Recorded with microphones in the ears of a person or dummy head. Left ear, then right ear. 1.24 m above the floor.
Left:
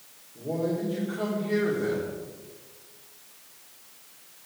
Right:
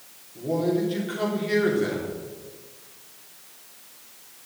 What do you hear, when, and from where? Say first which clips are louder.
0.3 s a man speaking: right 5 dB; 20° right (ahead or behind), 3.5 m